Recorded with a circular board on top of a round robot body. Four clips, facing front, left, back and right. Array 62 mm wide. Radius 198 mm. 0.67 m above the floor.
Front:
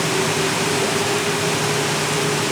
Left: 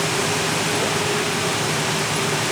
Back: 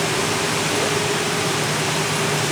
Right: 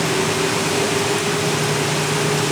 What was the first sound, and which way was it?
Only background noise.